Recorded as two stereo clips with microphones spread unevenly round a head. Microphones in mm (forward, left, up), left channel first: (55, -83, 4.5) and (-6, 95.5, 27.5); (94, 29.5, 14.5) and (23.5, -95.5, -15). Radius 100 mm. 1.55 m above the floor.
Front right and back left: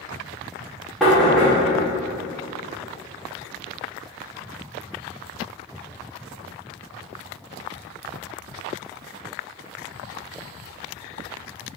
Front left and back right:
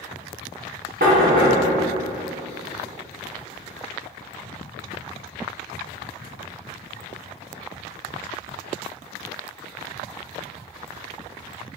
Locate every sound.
1.0 s knocking: 165° right, 0.8 m